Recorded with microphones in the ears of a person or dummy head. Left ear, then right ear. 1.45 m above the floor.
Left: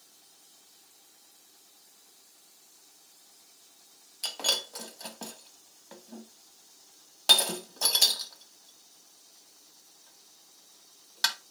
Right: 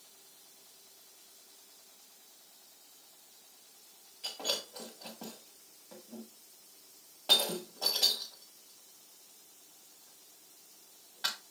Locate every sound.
4.2 s breaking glass: 65° left (ahead or behind), 1.8 m